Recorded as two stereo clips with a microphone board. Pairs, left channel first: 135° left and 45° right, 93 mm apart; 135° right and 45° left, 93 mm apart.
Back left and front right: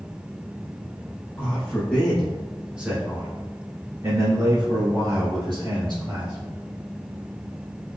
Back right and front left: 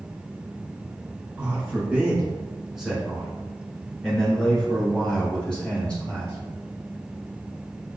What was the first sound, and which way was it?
A man speaking, 95° left.